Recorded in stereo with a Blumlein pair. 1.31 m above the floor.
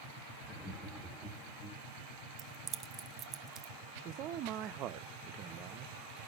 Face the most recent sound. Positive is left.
turn(degrees=-35)